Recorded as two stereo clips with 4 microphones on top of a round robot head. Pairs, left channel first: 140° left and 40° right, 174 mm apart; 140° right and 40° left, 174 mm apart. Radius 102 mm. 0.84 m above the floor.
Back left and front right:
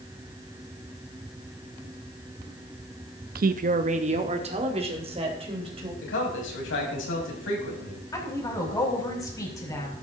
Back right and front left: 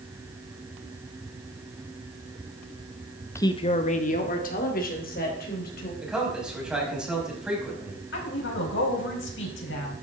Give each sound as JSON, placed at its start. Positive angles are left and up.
{"t": 3.4, "sound": "a woman speaking", "azimuth_deg": -65, "distance_m": 0.6}
{"t": 6.0, "sound": "a man speaking", "azimuth_deg": 125, "distance_m": 5.5}
{"t": 8.1, "sound": "a woman speaking", "azimuth_deg": -150, "distance_m": 4.5}